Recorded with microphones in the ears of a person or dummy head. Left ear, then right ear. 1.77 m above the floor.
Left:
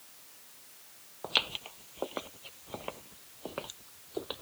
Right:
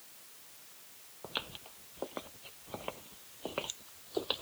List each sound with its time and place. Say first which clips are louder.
1.2 s footsteps: left 10 dB; 40° left (ahead or behind); by 4.4 s 25° right (ahead or behind)